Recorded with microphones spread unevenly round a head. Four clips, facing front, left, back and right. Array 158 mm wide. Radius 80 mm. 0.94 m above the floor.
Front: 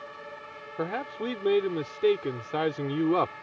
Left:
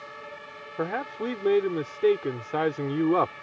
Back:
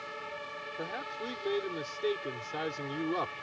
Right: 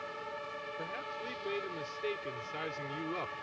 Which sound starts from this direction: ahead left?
A man speaking, at 0.8 s.